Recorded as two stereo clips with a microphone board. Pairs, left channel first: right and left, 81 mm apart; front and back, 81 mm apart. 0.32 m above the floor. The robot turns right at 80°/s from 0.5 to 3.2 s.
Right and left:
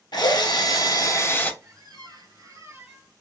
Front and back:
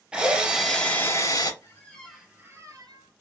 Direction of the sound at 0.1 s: 105° right.